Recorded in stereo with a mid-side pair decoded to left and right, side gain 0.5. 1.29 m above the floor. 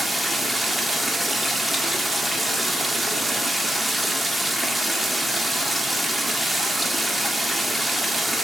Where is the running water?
5° right, 1.8 m.